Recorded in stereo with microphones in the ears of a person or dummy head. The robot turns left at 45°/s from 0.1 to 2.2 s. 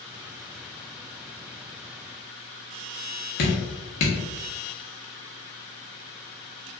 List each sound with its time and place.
3.4 s dripping: 40° left (ahead or behind), 1.0 m